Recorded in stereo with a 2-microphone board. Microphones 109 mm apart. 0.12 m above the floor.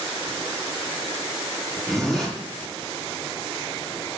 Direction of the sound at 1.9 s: Centre (ahead or behind).